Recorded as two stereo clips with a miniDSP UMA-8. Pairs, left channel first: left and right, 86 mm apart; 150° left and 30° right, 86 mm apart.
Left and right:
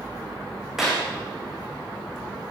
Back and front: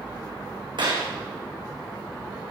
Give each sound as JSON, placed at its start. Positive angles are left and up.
{"t": 0.8, "sound": "a clap", "azimuth_deg": -5, "distance_m": 10.0}